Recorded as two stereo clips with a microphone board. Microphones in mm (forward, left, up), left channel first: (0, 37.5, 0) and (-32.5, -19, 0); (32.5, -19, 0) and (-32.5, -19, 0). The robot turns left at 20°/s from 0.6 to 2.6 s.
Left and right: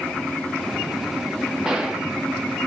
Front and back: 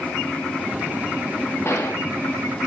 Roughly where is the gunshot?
Ahead right.